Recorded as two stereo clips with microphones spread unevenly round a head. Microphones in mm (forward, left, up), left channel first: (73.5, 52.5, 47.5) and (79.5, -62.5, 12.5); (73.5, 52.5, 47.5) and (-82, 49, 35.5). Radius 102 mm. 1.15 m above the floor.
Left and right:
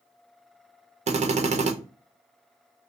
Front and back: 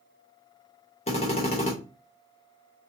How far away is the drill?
About 0.8 m.